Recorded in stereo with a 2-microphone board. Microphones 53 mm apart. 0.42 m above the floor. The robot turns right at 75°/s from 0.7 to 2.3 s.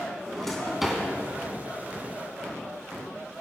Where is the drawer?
5° left (ahead or behind), 2.5 m; by 1.0 s 20° right (ahead or behind), 2.5 m.